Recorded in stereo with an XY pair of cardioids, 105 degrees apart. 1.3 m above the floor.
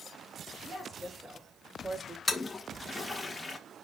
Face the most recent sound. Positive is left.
turn(degrees=20)